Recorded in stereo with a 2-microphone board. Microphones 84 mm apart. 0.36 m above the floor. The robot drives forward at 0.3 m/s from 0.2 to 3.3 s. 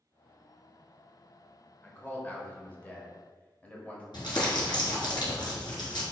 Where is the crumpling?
60° left (ahead or behind), 1.6 m.